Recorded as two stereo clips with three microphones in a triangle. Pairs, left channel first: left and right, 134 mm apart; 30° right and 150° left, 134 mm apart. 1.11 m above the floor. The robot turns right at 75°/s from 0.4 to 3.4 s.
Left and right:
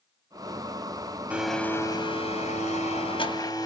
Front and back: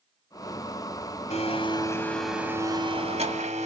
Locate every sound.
1.3 s a blender: 10° right, 1.6 m; by 3.7 s 145° left, 1.6 m